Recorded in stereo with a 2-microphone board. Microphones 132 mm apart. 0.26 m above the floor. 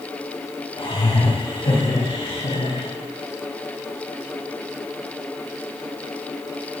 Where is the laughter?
50° left (ahead or behind), 4 m; by 2.9 s 55° left (ahead or behind), 2 m.